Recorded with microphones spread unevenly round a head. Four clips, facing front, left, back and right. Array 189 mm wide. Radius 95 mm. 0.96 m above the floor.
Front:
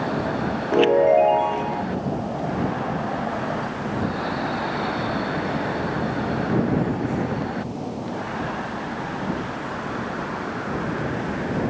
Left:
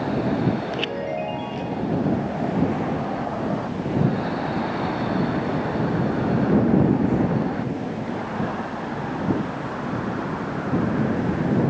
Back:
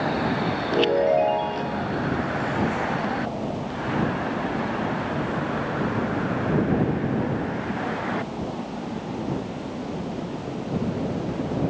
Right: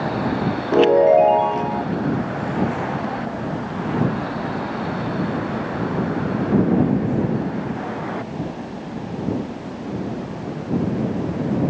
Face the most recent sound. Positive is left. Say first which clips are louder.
# right 14 dB, front 5 dB
turn(degrees=-75)